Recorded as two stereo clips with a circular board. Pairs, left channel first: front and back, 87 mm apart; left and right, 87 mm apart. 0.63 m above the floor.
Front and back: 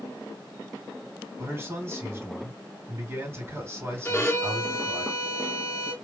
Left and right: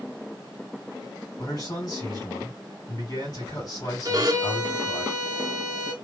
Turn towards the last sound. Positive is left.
turn(degrees=-55)